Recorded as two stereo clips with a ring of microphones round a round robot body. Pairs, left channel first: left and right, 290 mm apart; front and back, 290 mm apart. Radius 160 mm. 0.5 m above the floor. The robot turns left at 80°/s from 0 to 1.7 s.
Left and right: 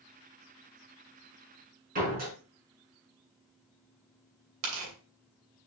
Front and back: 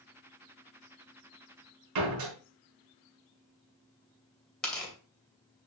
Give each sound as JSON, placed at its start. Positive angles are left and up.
{"t": 1.9, "sound": "a door slam", "azimuth_deg": -155, "distance_m": 4.0}
{"t": 4.6, "sound": "tearing paper", "azimuth_deg": -85, "distance_m": 2.5}